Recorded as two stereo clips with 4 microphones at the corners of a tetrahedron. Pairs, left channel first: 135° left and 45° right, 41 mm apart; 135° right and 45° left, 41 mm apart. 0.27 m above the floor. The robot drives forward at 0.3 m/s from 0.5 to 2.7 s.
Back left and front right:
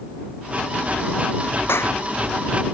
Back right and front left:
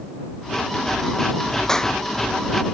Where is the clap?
150° left.